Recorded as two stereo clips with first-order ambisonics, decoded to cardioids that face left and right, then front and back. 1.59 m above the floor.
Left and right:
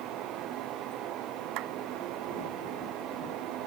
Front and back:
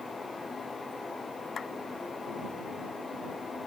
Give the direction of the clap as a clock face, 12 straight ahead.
2 o'clock.